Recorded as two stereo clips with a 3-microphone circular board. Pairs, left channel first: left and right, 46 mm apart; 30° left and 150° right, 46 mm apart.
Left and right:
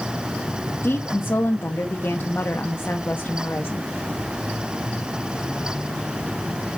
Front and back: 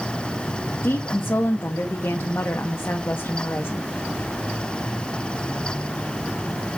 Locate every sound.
0.8 s a woman speaking: 60° left, 1.0 m